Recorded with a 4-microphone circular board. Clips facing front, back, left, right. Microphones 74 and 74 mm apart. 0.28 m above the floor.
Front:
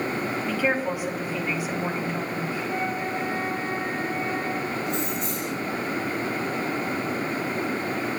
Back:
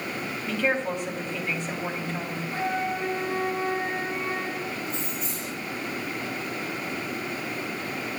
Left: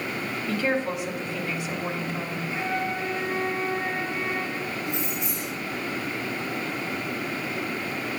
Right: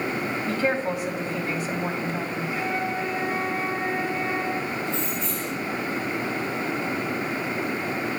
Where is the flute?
165° right, 6 m.